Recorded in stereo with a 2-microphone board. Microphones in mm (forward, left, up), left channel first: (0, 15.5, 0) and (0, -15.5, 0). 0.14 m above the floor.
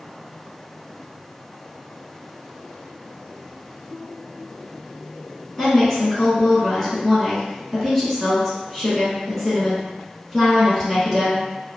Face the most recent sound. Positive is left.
turn(degrees=15)  # may be behind; listen again after turning